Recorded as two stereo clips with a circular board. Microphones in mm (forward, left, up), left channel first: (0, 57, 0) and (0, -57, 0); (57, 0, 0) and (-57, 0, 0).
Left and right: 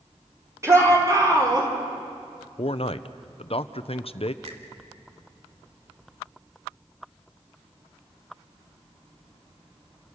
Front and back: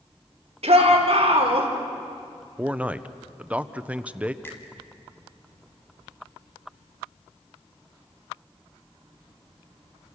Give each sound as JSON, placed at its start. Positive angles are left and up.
{"t": 0.6, "sound": "a shout", "azimuth_deg": -155, "distance_m": 5.0}
{"t": 2.6, "sound": "a man speaking", "azimuth_deg": 105, "distance_m": 0.9}
{"t": 4.4, "sound": "a finger snap", "azimuth_deg": -70, "distance_m": 3.0}